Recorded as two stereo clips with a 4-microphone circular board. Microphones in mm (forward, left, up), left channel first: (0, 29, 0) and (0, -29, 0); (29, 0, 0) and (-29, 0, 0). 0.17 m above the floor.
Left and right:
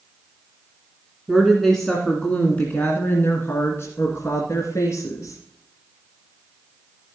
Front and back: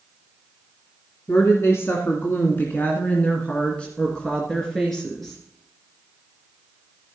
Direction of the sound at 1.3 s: Straight ahead.